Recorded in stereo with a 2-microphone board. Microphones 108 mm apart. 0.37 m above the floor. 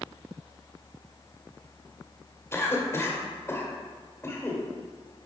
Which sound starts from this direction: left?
A cough, at 2.5 s.